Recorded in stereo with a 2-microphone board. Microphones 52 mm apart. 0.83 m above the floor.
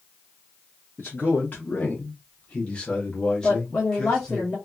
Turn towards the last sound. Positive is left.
turn(degrees=35)  # may be behind; listen again after turning